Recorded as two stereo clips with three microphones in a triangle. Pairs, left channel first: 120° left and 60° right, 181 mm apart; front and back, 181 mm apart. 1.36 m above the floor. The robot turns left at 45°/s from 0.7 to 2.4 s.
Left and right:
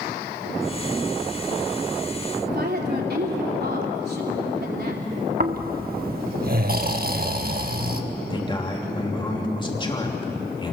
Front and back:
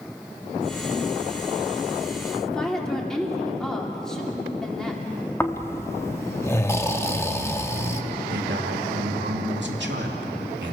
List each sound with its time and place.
2.4 s a woman speaking: 85° right, 4 m
5.4 s snoring: 75° right, 1.2 m
8.3 s a man speaking: 175° right, 3 m